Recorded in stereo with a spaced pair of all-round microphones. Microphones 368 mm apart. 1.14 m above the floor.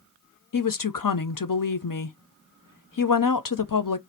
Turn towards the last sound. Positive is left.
turn(degrees=60)  # may be behind; listen again after turning